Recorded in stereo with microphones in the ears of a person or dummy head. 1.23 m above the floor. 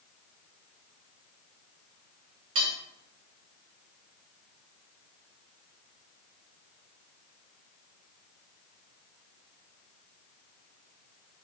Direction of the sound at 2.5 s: 35° right (ahead or behind).